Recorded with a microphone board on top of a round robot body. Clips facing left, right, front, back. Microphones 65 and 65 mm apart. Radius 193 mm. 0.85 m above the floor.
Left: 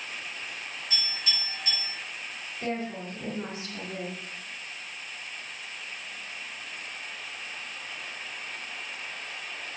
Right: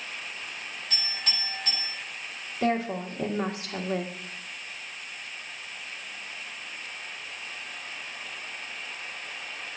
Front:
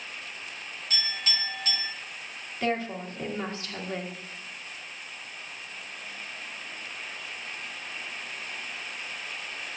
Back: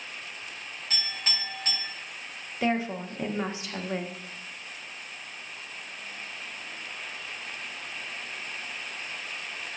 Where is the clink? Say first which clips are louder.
Left 1 dB, front 2 dB; 130° right, 5 m.